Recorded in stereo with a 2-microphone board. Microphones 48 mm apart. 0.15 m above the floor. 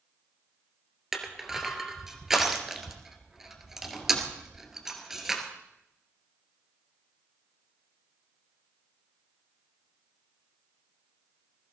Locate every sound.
1.1 s crushing: 10° right (ahead or behind), 2.0 m